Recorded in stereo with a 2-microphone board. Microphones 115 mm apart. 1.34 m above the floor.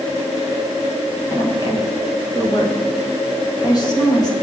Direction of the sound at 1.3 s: 35° left (ahead or behind).